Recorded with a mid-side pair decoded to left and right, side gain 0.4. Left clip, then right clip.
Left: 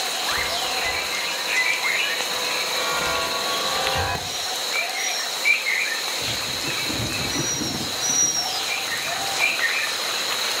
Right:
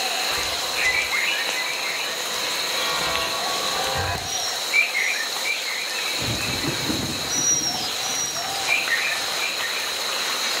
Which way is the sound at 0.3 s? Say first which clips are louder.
Left 1 dB; 10° left.